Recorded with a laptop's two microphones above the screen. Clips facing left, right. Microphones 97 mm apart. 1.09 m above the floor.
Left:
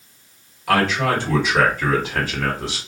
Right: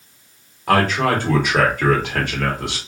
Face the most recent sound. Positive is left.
turn(degrees=-70)  # may be behind; listen again after turning